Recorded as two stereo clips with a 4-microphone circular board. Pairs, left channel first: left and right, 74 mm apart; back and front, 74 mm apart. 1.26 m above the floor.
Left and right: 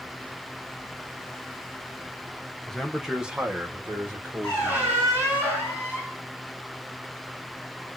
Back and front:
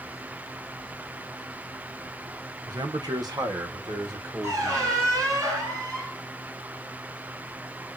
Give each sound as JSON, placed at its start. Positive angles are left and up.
{"t": 2.7, "sound": "a man speaking", "azimuth_deg": 10, "distance_m": 0.9}
{"t": 4.4, "sound": "a squeak", "azimuth_deg": -30, "distance_m": 3.0}